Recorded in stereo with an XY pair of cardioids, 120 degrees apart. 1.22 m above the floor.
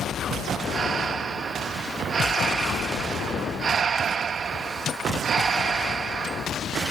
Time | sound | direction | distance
0.7 | breathing | 40° right | 1.1 m